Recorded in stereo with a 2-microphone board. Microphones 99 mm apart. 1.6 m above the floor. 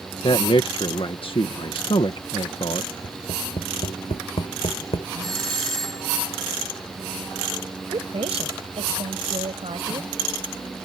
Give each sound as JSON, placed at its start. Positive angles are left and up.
{"t": 0.2, "sound": "a man speaking", "side_deg": 60}
{"t": 3.0, "sound": "tapping", "side_deg": 85}
{"t": 5.2, "sound": "a doorbell", "side_deg": 5}
{"t": 7.9, "sound": "a woman speaking", "side_deg": -75}